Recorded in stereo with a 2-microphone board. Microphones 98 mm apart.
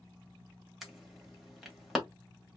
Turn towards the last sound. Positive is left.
turn(degrees=-5)  # may be behind; listen again after turning